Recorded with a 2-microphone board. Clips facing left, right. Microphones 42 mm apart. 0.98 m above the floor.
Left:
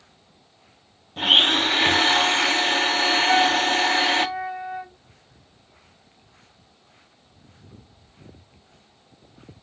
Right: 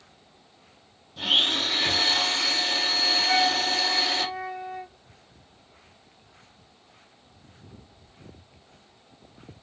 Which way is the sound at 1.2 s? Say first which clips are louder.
Left 6 dB; 45° left (ahead or behind).